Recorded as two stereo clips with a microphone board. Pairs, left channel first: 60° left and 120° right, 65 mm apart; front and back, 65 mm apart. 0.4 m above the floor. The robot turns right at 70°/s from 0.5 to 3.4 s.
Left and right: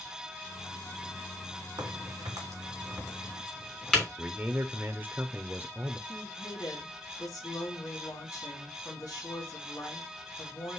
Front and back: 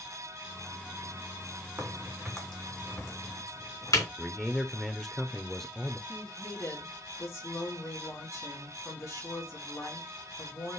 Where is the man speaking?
80° right, 0.8 m.